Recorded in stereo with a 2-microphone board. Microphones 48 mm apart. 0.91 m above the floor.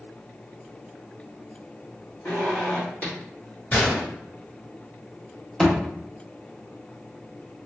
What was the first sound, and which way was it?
A zipper, 30° left (ahead or behind).